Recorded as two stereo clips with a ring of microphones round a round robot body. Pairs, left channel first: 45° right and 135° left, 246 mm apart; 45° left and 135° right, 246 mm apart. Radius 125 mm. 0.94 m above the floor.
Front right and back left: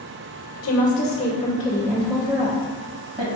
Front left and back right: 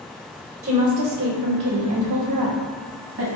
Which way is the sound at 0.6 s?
75° right.